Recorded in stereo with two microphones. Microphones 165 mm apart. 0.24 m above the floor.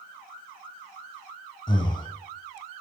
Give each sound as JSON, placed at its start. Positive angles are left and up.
{"t": 1.7, "sound": "breathing", "side_deg": 30, "distance_m": 0.8}